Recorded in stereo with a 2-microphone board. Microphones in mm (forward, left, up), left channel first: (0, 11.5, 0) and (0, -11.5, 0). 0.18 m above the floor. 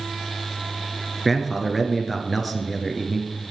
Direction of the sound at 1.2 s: 5° right (ahead or behind).